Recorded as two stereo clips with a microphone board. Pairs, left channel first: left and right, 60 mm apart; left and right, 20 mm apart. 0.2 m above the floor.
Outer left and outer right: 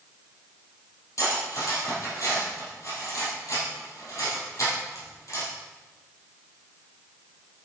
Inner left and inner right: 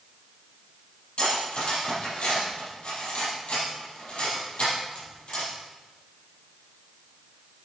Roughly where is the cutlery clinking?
Left.